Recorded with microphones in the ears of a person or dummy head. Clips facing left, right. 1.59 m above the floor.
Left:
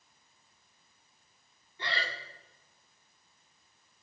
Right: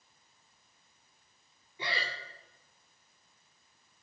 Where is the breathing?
10° right (ahead or behind), 2.5 m.